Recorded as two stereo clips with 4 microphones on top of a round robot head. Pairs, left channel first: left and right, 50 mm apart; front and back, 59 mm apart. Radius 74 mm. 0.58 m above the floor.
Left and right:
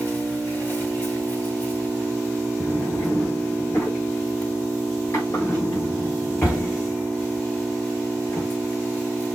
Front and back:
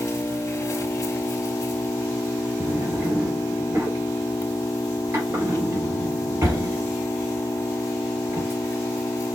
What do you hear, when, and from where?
0.0 s an engine running: 35° left, 1.4 m
2.6 s a drawer: 130° left, 3.5 m